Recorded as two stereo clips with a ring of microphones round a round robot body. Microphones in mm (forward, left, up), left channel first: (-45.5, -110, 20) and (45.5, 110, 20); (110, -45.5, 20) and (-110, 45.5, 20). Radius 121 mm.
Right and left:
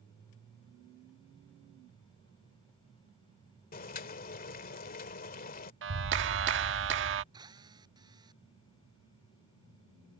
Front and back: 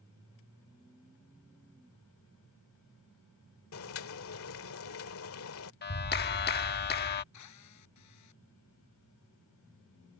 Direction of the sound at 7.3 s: 5° right.